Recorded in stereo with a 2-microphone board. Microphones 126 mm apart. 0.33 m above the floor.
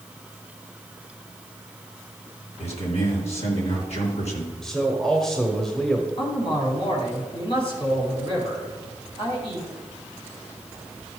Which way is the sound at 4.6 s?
5° left (ahead or behind).